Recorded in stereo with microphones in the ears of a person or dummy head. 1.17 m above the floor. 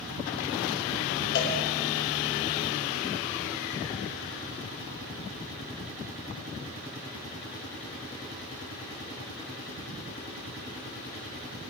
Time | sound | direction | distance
1.4 | a cowbell | 60° left (ahead or behind) | 2.5 m